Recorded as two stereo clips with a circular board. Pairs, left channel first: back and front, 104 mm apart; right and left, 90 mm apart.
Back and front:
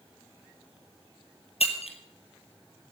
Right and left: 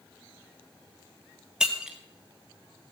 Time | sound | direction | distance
1.6 | breaking glass | 170° left | 1.9 m